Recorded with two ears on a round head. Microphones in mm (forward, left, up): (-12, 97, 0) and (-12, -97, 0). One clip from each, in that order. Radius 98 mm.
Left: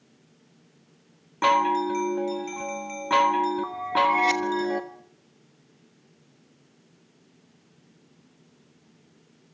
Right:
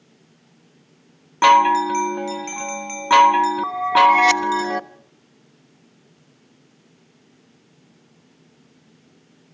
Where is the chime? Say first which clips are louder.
Right 8 dB; 40° right (ahead or behind), 1.3 m.